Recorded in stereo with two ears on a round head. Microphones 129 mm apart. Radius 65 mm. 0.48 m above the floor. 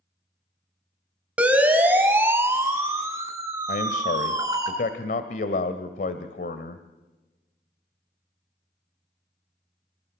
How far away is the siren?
About 4 m.